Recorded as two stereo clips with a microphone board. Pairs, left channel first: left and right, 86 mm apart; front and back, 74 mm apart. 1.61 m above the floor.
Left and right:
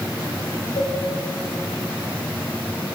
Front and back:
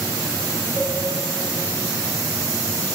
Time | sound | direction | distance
0.8 | a cowbell | 100° left | 4 m